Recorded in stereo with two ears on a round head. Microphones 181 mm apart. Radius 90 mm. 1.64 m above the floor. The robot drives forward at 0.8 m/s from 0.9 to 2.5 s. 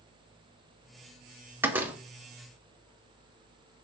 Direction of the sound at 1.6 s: 10° right (ahead or behind).